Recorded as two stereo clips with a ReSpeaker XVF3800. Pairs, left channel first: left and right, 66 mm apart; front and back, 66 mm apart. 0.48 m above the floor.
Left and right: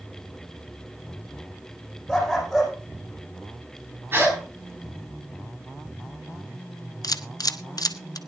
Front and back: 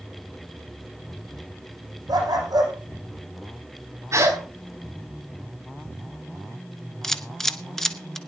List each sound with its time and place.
2.1 s a dog barking: 175° right, 5 m
4.1 s a gasp: 140° right, 4 m
7.0 s a camera shutter: 80° left, 0.9 m